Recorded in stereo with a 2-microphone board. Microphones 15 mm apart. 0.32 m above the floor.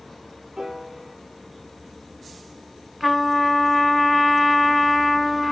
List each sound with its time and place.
0.6 s a piano: 40° right (ahead or behind), 1.6 m
3.0 s a trumpet: 10° left (ahead or behind), 1.4 m